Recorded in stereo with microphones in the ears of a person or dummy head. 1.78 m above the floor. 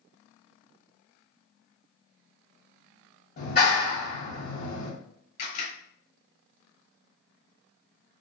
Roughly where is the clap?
Left.